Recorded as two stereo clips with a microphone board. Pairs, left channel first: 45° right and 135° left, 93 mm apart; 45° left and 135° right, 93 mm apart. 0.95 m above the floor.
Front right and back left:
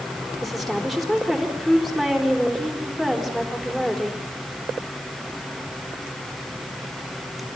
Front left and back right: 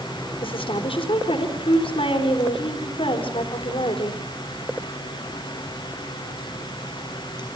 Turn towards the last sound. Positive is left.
turn(degrees=45)